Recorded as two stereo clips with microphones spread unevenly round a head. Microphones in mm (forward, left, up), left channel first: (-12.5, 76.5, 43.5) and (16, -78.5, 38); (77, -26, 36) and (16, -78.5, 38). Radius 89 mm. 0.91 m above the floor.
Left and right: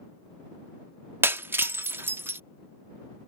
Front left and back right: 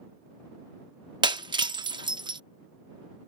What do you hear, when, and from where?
1.2 s breaking glass: 155° right